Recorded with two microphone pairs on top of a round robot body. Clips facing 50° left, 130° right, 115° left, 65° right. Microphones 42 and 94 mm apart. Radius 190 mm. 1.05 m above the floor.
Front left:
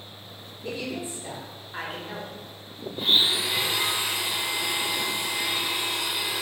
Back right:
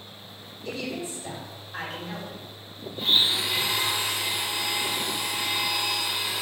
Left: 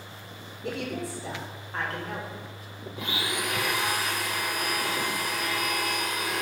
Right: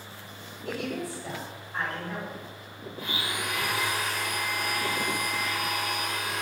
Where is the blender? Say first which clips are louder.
Front left 1 dB, left 2 dB; 125° left, 0.6 m.